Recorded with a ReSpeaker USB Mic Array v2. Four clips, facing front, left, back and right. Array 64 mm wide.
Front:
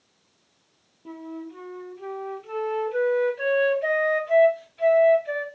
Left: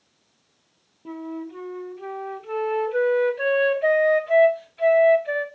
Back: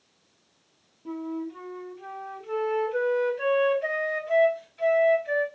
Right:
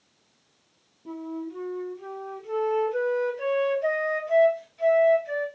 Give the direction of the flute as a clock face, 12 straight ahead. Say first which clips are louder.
Left 1 dB, back 4 dB; 9 o'clock.